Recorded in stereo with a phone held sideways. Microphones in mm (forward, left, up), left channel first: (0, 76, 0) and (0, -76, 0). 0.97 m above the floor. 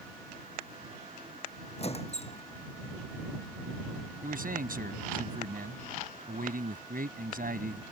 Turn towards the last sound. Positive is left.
turn(degrees=-70)  # may be behind; listen again after turning